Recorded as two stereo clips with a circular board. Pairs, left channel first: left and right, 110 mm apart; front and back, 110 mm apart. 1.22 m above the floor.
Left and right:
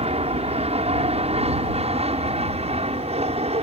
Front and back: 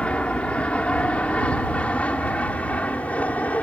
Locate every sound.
0.0 s an aircraft: 80° right; by 3.6 s 75° right